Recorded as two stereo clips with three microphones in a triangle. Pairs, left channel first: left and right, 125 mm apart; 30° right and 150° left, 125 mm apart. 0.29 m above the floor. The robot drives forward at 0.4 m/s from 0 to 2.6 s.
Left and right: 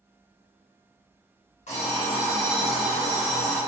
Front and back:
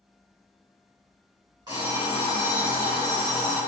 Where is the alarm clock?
95° left, 1.8 m; by 3.6 s 105° left, 1.9 m.